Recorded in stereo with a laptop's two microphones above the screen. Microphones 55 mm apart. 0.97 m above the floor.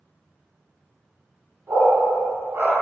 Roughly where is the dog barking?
Right.